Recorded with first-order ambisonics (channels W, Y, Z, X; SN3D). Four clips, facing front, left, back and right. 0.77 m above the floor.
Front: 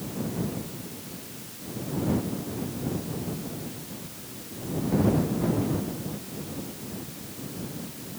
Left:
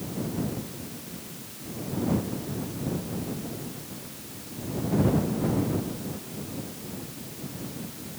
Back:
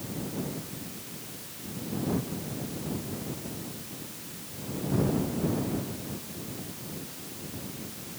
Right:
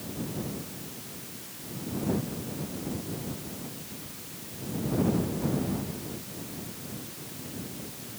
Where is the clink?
I don't hear a clink.